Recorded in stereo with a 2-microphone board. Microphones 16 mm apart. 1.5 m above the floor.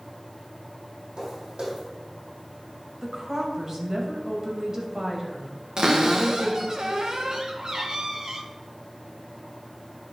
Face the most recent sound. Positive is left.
turn(degrees=-55)  # may be behind; listen again after turning